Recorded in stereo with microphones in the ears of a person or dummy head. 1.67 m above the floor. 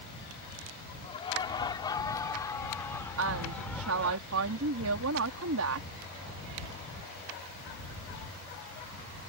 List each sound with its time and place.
1.0 s laughter: 20° left (ahead or behind); by 4.2 s centre (ahead or behind)
3.2 s a woman speaking: 80° right